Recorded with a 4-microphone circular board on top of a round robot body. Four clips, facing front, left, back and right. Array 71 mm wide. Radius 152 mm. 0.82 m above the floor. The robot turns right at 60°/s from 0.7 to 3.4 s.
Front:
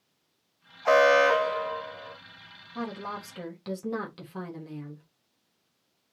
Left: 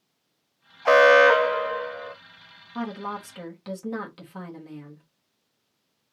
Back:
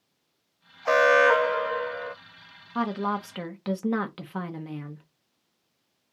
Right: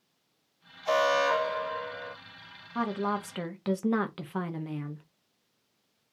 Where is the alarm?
85° left, 1.1 m; by 2.1 s 165° left, 1.1 m.